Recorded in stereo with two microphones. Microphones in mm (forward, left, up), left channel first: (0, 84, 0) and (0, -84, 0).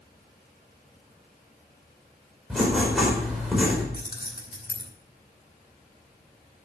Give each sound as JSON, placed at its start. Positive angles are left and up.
{"t": 2.5, "sound": "writing", "side_deg": 0, "distance_m": 4.5}
{"t": 3.9, "sound": "keys jangling", "side_deg": 70, "distance_m": 4.0}